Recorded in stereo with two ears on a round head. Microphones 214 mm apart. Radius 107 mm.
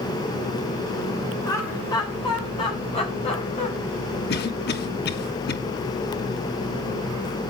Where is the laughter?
15° left (ahead or behind), 3 m; by 3.7 s 30° left (ahead or behind), 5 m.